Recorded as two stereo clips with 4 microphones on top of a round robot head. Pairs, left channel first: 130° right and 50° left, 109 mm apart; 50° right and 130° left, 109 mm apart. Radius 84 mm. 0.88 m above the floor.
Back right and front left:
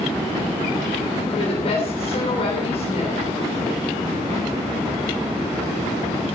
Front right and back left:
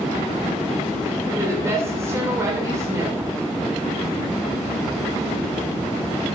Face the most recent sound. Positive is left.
turn(degrees=-165)